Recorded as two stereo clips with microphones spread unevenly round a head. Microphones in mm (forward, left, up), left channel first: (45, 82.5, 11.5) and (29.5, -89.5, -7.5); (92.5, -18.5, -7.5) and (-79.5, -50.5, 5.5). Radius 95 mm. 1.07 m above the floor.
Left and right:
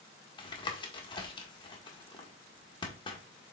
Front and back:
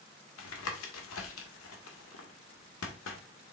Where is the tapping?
25° left, 1.6 m.